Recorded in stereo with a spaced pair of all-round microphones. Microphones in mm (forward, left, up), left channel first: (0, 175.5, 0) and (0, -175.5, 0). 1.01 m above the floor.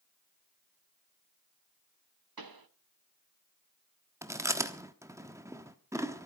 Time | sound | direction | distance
2.4 | a pop | 80° right | 0.9 m
4.2 | chewing | 10° right (ahead or behind) | 1.2 m